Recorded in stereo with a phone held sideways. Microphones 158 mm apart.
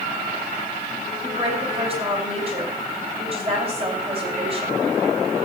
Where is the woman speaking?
35° right (ahead or behind), 4 m.